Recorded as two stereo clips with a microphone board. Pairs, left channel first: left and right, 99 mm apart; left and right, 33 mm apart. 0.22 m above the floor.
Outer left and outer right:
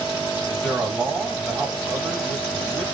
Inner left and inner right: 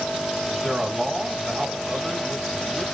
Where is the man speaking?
Centre (ahead or behind), 1.0 m.